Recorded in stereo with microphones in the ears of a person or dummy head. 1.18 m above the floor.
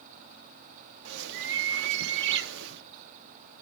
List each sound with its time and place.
1.1 s a bird: 60° right (ahead or behind), 0.5 m